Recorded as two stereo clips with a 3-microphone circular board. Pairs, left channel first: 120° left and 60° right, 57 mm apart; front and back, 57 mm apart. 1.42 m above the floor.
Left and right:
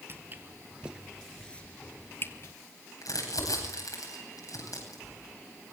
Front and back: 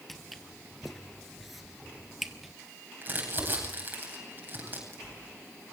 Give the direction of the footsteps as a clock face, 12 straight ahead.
3 o'clock.